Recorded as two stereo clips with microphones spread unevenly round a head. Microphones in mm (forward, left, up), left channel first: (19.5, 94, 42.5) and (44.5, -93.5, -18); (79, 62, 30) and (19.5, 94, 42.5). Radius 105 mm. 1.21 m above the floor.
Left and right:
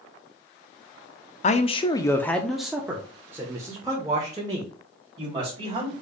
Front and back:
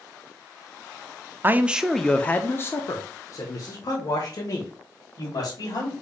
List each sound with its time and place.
1.4 s a man speaking: 130° left, 0.5 m; by 5.9 s 20° right, 2.5 m